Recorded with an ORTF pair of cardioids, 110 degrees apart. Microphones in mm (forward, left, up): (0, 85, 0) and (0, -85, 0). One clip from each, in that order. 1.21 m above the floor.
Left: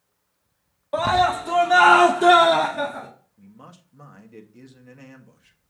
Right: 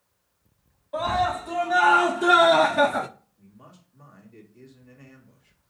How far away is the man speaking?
About 1.6 m.